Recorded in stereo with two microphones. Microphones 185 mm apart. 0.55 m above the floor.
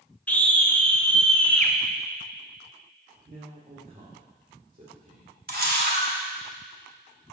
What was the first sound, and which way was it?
A scream, 10° left (ahead or behind).